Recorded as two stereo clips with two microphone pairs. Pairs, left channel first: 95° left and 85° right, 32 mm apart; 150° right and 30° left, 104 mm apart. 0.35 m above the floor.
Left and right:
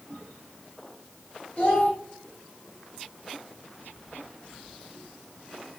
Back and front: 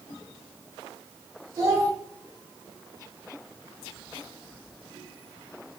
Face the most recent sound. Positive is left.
turn(degrees=75)